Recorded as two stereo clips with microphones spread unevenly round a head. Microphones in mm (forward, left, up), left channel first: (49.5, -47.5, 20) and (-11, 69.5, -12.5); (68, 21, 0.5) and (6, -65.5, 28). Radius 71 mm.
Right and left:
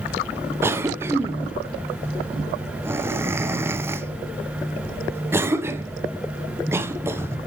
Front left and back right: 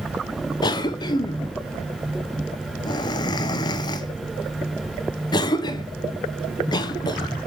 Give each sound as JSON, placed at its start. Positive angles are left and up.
{"t": 0.6, "sound": "a cough", "azimuth_deg": 60, "distance_m": 0.7}